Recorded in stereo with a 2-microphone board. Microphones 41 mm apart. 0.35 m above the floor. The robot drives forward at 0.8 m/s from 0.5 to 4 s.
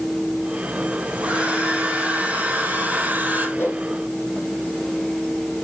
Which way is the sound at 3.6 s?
70° left (ahead or behind).